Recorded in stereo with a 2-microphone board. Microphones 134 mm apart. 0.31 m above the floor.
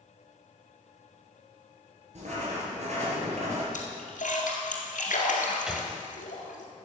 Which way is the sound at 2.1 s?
60° right (ahead or behind).